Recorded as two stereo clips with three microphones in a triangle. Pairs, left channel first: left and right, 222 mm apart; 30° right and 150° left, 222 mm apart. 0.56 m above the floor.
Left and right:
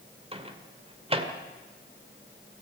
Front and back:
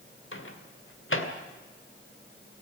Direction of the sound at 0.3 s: 30° right.